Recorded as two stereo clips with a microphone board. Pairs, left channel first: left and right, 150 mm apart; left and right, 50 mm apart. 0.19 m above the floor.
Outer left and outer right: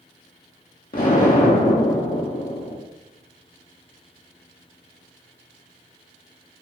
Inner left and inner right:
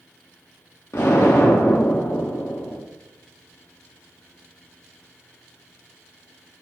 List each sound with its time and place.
0.9 s an explosion: 80° left, 4.5 m